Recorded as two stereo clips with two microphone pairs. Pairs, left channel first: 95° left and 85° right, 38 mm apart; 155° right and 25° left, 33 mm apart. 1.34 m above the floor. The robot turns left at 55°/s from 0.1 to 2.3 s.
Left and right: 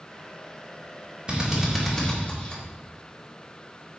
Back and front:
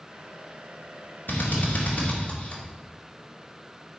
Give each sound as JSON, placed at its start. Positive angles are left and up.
{"t": 1.3, "sound": "a drill", "azimuth_deg": -150, "distance_m": 2.0}